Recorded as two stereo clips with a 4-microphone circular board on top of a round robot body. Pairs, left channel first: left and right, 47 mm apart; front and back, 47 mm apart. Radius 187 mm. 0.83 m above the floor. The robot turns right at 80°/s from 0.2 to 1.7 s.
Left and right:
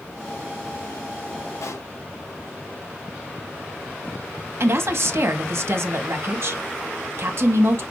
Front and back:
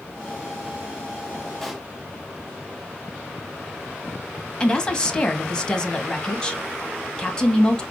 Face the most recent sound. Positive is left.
turn(degrees=-70)